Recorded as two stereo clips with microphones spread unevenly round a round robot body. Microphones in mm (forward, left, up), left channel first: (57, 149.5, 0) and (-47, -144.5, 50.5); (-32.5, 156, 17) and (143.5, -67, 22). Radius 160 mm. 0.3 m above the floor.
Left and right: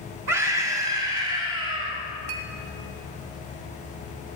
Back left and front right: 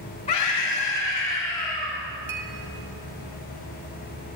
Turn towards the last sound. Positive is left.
turn(degrees=-110)